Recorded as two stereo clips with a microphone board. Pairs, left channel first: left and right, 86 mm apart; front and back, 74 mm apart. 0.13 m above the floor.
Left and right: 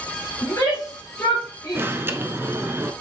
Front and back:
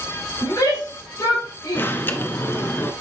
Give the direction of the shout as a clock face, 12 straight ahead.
11 o'clock.